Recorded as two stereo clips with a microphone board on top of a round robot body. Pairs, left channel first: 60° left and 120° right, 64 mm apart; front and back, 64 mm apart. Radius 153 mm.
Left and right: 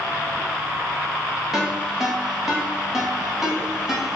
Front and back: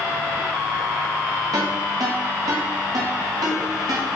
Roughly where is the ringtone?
Behind left.